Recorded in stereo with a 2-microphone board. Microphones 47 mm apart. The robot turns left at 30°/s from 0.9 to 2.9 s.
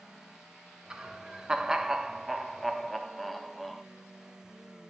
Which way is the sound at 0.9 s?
15° right (ahead or behind).